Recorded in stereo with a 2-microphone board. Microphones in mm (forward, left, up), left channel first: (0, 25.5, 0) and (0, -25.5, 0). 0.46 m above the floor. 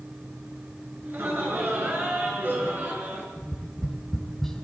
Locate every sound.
1.0 s laughter: 45° right (ahead or behind), 8 m; by 3.3 s 40° right (ahead or behind), 7 m
3.4 s tapping: 5° left (ahead or behind), 3.5 m